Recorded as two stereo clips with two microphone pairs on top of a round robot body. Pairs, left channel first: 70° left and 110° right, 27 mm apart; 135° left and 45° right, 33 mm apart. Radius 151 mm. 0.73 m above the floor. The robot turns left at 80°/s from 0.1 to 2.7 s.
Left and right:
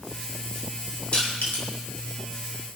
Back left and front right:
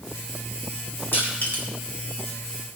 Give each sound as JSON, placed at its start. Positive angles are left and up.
{"t": 1.1, "sound": "crushing", "azimuth_deg": 120, "distance_m": 4.5}